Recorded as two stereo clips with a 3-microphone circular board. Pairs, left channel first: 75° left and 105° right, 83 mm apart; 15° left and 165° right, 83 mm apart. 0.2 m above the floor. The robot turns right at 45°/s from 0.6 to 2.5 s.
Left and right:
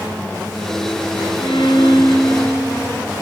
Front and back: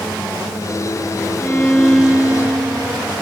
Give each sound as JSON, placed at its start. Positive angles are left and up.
{"t": 1.4, "sound": "a violin", "azimuth_deg": 80, "distance_m": 0.9}